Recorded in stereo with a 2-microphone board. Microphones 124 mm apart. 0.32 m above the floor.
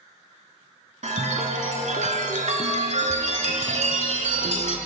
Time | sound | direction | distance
1.0 | a chime | 75° right (ahead or behind) | 0.8 m